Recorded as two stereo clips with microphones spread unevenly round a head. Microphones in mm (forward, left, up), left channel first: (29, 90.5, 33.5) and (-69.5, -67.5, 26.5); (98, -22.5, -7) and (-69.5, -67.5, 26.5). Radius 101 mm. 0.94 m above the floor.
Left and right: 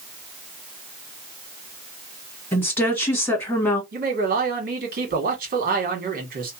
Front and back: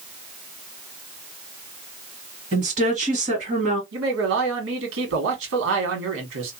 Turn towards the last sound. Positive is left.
turn(degrees=-165)